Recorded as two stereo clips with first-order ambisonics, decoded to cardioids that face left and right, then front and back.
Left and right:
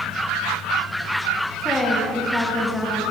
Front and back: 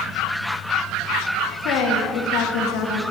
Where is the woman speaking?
Straight ahead, 1.9 m.